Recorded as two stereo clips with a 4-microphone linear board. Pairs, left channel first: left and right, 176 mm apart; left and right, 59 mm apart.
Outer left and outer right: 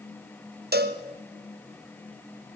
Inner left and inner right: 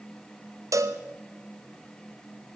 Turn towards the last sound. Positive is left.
turn(degrees=-60)  # may be behind; listen again after turning